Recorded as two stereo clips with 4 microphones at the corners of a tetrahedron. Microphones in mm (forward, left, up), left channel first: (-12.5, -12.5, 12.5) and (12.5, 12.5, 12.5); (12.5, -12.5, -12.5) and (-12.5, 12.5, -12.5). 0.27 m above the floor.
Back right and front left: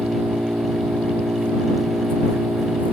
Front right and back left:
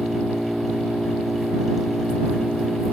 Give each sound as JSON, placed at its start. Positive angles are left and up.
{"t": 0.0, "sound": "an engine running", "azimuth_deg": 50}